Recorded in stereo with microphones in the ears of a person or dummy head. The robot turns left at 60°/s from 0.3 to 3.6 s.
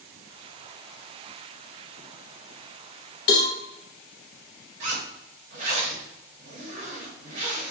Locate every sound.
3.3 s a cowbell: 50° left (ahead or behind), 0.6 m; by 3.5 s 35° left (ahead or behind), 0.6 m
4.8 s a zipper: 40° right (ahead or behind), 0.8 m